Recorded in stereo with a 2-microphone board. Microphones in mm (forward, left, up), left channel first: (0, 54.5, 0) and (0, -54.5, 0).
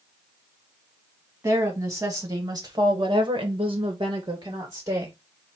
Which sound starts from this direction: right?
A woman speaking, at 1.4 s.